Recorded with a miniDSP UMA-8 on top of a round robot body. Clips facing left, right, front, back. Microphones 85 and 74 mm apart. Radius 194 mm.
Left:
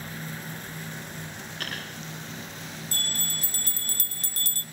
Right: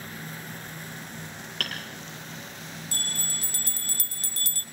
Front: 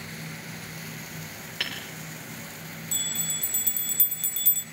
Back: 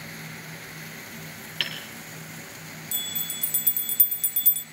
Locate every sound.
1.6 s hammering: 70° right, 6.5 m
2.9 s a bell: 95° left, 1.7 m